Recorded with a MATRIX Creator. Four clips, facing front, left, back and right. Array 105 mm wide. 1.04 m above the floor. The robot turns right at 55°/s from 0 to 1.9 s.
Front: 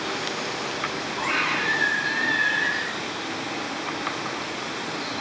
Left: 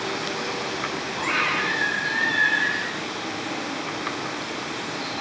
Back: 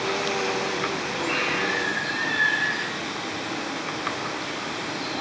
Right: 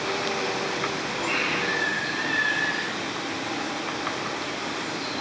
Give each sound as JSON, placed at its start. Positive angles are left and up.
{"t": 1.2, "sound": "a scream", "azimuth_deg": 55, "distance_m": 4.5}